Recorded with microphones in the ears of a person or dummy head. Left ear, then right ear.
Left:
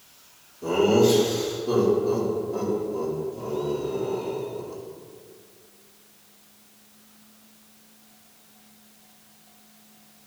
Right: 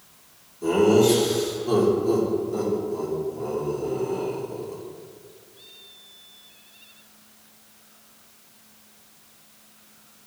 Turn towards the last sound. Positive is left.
turn(degrees=-45)  # may be behind; listen again after turning